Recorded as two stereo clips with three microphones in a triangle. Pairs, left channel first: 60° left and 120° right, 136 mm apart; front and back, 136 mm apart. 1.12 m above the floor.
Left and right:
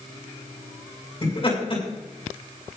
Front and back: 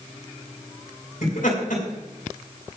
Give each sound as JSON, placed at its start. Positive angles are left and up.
{"t": 1.2, "sound": "laughter", "azimuth_deg": 10, "distance_m": 5.5}